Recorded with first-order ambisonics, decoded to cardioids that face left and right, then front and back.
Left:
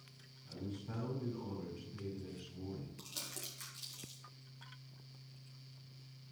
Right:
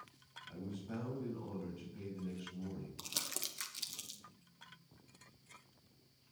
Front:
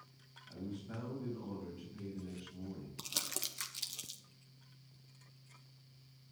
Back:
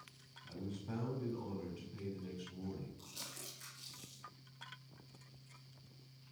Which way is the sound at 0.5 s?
160° left.